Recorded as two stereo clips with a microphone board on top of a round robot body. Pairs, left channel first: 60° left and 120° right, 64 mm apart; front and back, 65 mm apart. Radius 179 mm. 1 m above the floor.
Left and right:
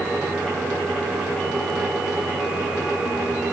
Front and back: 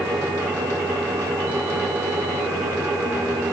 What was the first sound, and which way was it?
Only background noise.